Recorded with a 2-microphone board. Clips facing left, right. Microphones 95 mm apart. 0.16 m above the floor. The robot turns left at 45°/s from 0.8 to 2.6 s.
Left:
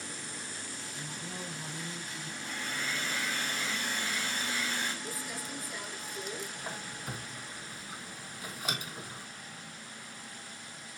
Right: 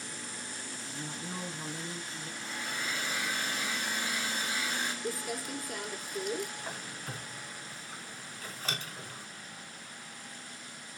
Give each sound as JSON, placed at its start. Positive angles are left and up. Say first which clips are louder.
{"t": 0.7, "sound": "a man speaking", "louder": "right 2 dB", "azimuth_deg": -60, "distance_m": 1.4}
{"t": 2.4, "sound": "a hair dryer", "louder": "even", "side_deg": -10, "distance_m": 2.5}
{"t": 5.0, "sound": "crumpling", "louder": "right 4 dB", "side_deg": -60, "distance_m": 1.3}
{"t": 6.6, "sound": "a squeak", "louder": "left 1 dB", "side_deg": 15, "distance_m": 1.3}